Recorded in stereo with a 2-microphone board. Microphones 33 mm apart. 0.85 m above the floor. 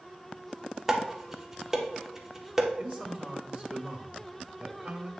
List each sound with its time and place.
0.9 s dishes clattering: 15° right (ahead or behind), 1.0 m
2.8 s a man speaking: 35° right (ahead or behind), 1.4 m